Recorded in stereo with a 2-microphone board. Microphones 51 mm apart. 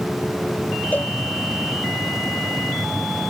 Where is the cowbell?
35° left (ahead or behind).